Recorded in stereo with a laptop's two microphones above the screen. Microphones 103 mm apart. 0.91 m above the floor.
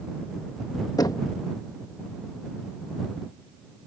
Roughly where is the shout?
I don't hear a shout.